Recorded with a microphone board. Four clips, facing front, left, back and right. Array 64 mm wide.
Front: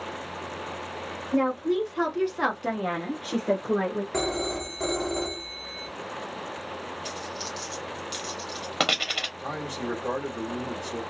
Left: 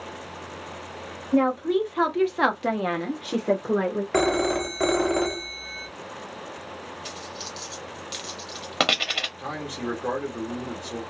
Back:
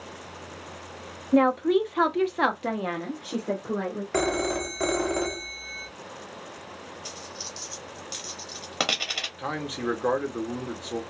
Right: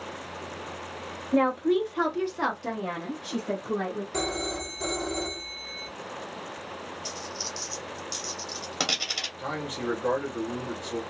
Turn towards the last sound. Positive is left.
turn(degrees=180)